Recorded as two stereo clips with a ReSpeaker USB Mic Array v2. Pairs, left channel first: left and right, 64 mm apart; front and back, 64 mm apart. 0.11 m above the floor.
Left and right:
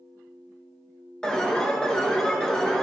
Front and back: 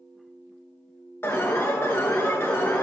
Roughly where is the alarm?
Ahead.